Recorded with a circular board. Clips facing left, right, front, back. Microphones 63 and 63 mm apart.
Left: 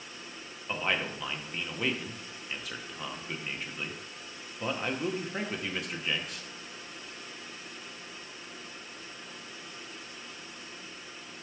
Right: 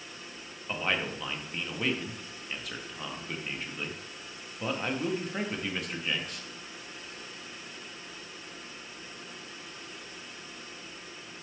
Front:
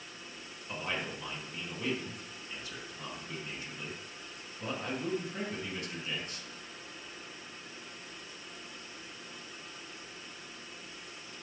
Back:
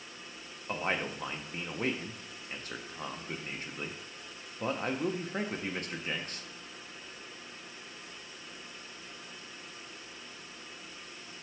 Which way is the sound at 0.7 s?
Straight behind.